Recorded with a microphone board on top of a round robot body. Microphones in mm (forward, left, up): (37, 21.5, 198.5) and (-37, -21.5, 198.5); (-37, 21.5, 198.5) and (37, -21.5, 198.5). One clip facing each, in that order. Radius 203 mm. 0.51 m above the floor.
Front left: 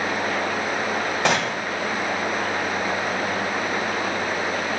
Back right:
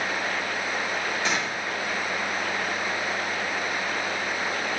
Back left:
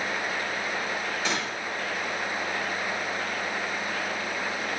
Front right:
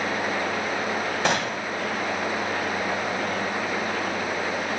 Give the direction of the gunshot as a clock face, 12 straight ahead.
12 o'clock.